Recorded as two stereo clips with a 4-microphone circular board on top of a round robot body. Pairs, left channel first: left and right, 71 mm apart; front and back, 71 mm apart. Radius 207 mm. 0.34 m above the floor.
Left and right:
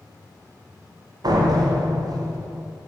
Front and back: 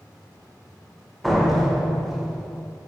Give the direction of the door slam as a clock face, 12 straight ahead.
3 o'clock.